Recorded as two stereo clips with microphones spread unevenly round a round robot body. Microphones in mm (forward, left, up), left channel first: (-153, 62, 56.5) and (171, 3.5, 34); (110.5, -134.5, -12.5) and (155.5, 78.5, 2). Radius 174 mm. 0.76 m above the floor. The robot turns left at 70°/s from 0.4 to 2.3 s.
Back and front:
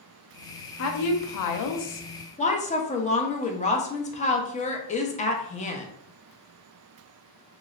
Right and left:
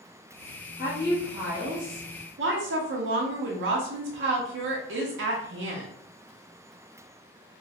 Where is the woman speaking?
155° right, 0.6 m; by 5.9 s 100° left, 0.6 m.